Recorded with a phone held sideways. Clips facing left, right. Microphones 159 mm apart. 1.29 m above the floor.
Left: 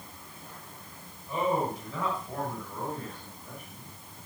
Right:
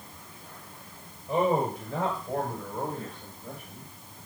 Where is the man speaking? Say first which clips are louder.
Right 3 dB; 65° right (ahead or behind), 6 m; by 3.9 s 70° right (ahead or behind), 8 m.